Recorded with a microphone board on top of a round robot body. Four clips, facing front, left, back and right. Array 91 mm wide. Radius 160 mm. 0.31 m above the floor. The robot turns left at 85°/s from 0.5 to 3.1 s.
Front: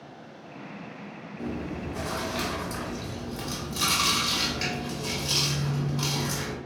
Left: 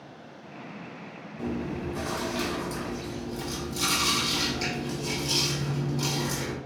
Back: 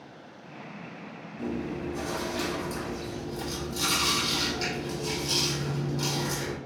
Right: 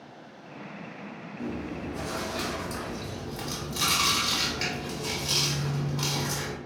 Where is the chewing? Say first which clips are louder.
Left 3 dB, back 1 dB; 85° left, 1.2 m; by 6.6 s 60° right, 1.2 m.